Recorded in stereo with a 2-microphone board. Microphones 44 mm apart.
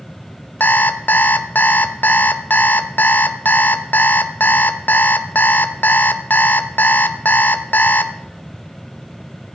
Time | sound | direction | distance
0.6 | an alarm clock | 45° left (ahead or behind) | 0.7 m